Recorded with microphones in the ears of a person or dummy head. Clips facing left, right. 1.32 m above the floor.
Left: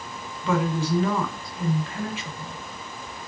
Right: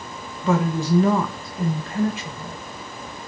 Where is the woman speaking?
40° right (ahead or behind), 1.7 m.